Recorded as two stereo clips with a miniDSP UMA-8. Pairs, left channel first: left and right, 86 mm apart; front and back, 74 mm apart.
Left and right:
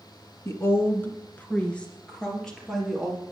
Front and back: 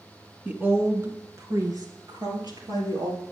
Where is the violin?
I don't hear a violin.